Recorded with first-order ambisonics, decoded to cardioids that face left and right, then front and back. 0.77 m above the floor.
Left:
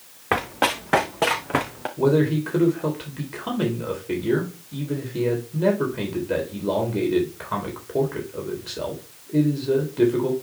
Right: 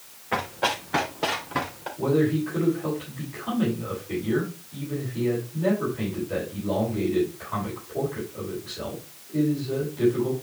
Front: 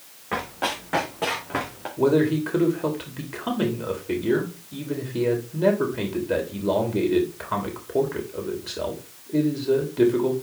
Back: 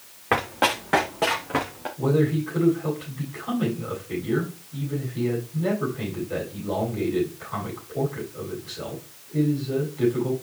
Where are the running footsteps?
125° left, 3 m; by 1.9 s 90° left, 3 m.